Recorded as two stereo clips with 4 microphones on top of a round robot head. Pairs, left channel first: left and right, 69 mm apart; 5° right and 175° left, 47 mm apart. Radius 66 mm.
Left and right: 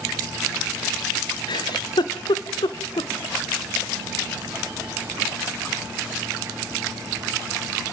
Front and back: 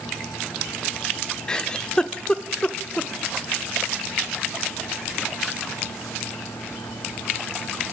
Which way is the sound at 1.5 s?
70° left.